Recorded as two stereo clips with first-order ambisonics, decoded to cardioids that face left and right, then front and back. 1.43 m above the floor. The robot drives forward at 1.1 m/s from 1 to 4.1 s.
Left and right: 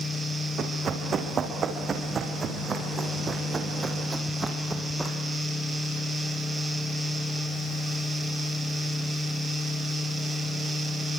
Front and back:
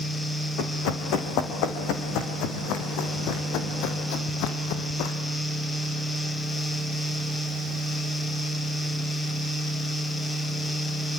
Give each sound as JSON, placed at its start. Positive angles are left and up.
{"t": 0.6, "sound": "running footsteps", "azimuth_deg": -25, "distance_m": 4.0}